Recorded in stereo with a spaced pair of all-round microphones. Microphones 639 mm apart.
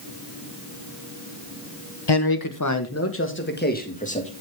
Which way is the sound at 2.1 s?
40° left (ahead or behind).